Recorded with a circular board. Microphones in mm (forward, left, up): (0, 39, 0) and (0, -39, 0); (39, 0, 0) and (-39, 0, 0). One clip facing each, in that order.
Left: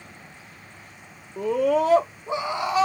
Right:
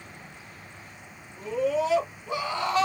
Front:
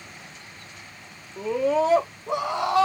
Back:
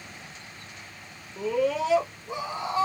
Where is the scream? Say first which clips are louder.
Left 5 dB, front 3 dB; 85° left, 0.6 m; by 2.9 s 5° left, 0.8 m.